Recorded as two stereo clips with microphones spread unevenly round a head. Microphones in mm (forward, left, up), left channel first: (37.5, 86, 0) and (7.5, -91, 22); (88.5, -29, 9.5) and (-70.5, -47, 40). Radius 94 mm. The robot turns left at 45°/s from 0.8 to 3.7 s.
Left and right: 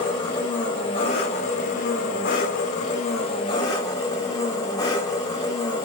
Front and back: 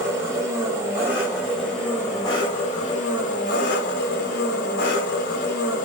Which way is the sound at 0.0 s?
145° left.